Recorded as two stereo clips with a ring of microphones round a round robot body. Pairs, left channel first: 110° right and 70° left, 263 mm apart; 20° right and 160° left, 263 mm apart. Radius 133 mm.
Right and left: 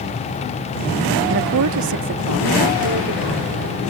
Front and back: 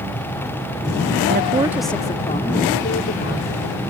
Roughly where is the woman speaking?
Left.